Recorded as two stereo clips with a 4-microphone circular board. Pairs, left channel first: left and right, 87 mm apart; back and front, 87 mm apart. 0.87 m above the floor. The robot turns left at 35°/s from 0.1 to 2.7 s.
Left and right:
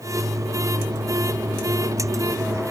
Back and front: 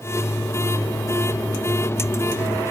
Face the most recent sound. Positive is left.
No sound to turn to.